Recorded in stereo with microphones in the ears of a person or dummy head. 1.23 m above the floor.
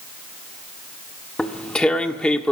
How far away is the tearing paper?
About 1.3 m.